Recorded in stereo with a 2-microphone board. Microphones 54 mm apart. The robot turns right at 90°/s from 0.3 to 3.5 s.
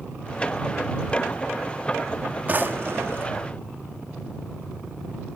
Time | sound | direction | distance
2.5 | a drawer | 135° right | ?